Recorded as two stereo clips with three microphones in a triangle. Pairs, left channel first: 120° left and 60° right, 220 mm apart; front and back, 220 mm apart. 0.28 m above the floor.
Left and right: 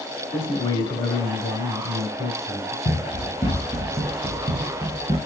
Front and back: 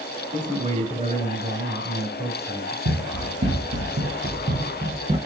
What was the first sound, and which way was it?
A man speaking, 170° left.